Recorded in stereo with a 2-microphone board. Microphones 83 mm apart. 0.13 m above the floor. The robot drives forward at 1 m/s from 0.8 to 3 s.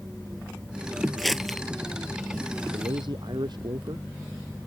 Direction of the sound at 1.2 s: Centre (ahead or behind).